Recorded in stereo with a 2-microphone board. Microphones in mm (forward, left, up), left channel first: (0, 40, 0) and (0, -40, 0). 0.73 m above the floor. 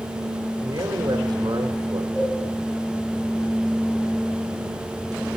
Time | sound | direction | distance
0.6 | a man speaking | 55° right (ahead or behind) | 1.8 m
2.1 | a cowbell | 55° left (ahead or behind) | 9 m